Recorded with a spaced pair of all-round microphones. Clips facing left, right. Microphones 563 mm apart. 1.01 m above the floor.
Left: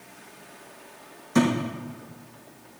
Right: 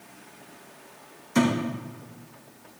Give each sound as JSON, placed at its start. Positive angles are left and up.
{"t": 1.4, "sound": "a thud", "side_deg": 70, "distance_m": 4.5}